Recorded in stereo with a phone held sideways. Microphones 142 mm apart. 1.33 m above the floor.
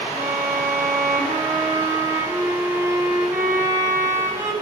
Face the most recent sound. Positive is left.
turn(degrees=-20)  # may be behind; listen again after turning